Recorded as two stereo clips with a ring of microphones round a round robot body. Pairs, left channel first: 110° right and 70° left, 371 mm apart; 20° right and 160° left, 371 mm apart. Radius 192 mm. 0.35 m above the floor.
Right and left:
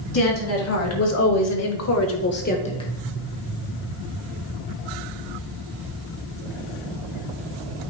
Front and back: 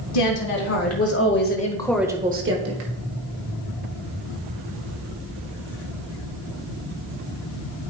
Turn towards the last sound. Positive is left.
turn(degrees=170)